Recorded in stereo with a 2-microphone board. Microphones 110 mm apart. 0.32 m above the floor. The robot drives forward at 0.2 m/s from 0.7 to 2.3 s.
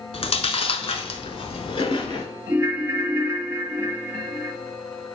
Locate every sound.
0.1 s chewing: 65° left (ahead or behind), 0.7 m; by 2.3 s 50° left (ahead or behind), 0.9 m
2.5 s a ringtone: 25° right (ahead or behind), 0.5 m